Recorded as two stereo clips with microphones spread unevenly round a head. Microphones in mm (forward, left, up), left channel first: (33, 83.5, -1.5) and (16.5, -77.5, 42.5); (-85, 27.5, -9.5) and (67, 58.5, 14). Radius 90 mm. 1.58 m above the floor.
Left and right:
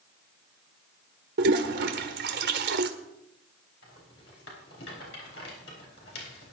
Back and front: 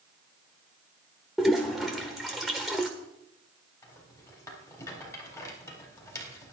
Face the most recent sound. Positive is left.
turn(degrees=120)